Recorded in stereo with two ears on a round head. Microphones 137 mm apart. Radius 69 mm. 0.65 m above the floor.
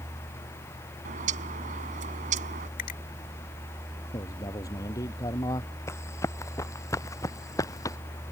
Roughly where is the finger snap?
Left.